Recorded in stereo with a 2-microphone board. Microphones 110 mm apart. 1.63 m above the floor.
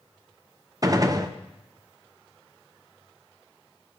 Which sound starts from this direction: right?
A gunshot, at 0.8 s.